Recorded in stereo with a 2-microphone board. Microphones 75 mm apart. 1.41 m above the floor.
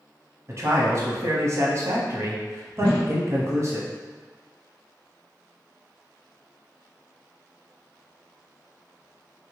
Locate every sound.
0.5 s a man speaking: 40° right (ahead or behind), 0.7 m
2.8 s a whoosh: 35° left (ahead or behind), 0.9 m